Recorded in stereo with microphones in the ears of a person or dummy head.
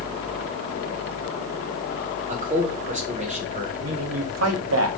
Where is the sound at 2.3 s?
40° right (ahead or behind), 1.6 m.